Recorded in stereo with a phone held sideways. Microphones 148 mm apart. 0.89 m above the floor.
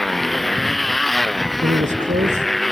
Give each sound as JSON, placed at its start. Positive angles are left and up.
{"t": 0.0, "sound": "a motorcycle", "side_deg": 0}
{"t": 1.6, "sound": "a man speaking", "side_deg": -55}